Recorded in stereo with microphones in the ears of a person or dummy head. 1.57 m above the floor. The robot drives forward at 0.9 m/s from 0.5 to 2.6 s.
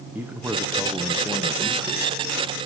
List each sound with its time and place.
0.1 s a man speaking: 10° right (ahead or behind), 1.2 m; by 2.7 s 5° right (ahead or behind), 3 m